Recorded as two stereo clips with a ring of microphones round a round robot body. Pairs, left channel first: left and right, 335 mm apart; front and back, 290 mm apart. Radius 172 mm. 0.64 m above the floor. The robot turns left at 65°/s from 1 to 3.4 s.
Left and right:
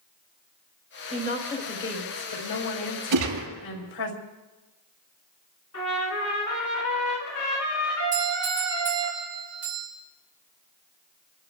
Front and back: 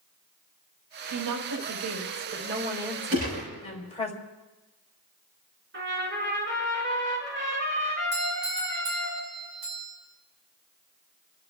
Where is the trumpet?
130° left, 7.5 m.